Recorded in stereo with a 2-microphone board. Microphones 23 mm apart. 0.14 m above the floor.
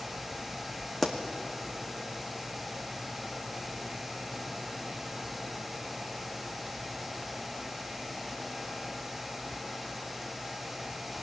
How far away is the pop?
About 2 m.